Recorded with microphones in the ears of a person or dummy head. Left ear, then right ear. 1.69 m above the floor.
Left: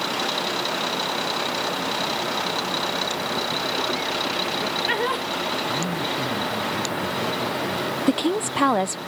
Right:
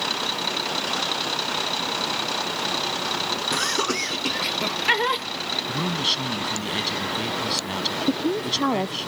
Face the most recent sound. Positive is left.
turn(degrees=55)  # may be behind; listen again after turning